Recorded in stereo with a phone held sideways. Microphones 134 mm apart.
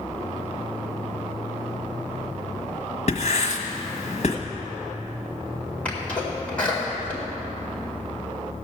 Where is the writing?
50° left (ahead or behind), 1.3 m.